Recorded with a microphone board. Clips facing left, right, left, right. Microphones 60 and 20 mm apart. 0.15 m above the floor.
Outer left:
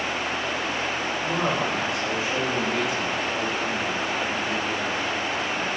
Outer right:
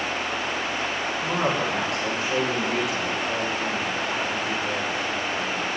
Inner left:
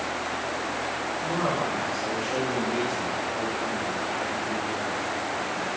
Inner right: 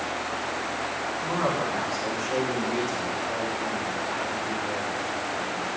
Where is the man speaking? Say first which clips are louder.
Outer right 1 dB, inner right 1 dB; 80° right, 7 m; by 5.7 s 75° right (ahead or behind), 10.5 m.